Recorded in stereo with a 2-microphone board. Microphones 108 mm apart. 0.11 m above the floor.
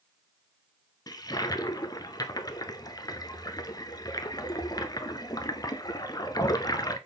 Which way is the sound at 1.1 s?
35° left (ahead or behind).